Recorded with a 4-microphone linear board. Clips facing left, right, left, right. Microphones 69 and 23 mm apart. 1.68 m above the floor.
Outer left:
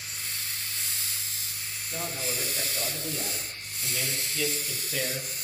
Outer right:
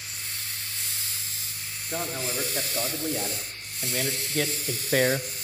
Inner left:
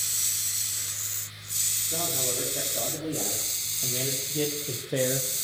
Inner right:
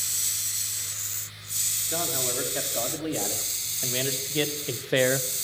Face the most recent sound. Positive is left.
turn(degrees=-65)  # may be behind; listen again after turning